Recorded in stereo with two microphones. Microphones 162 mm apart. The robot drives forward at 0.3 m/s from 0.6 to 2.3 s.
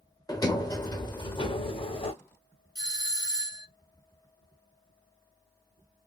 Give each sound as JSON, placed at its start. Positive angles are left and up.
{"t": 0.3, "sound": "a sliding door", "side_deg": 20, "distance_m": 0.9}
{"t": 2.8, "sound": "a doorbell", "side_deg": -20, "distance_m": 0.9}